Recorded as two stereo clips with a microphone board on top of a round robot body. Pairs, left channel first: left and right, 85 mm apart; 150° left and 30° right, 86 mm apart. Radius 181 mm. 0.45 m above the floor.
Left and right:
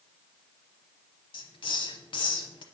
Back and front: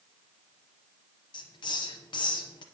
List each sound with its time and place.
1.3 s a hiss: 115° left, 0.8 m